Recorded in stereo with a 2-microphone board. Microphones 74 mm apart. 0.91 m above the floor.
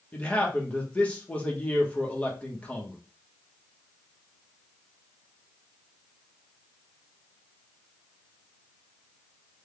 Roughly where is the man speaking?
Centre.